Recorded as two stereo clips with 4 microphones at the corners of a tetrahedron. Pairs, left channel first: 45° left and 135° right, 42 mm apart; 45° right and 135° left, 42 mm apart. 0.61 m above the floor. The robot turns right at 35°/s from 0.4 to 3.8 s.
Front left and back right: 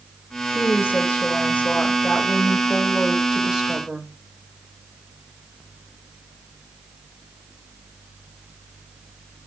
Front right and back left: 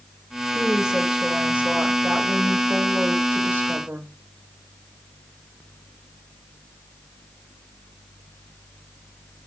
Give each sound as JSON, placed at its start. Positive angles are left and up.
{"t": 0.5, "sound": "a woman speaking", "azimuth_deg": 50, "distance_m": 0.8}